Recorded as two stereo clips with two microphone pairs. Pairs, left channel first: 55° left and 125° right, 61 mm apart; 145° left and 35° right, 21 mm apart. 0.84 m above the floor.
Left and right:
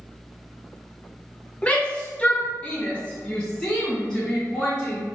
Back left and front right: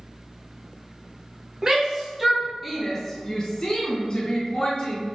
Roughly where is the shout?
Ahead.